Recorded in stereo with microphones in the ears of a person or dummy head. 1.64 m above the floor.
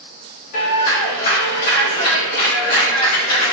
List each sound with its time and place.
0.5 s a clap: 65° left (ahead or behind), 2 m